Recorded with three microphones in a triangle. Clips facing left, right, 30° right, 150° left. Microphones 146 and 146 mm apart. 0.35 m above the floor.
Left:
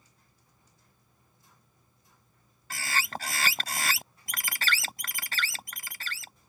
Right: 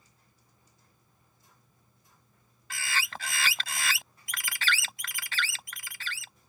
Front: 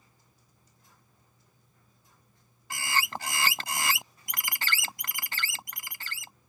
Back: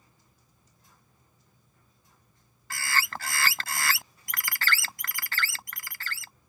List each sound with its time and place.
2.7 s a bird: 40° left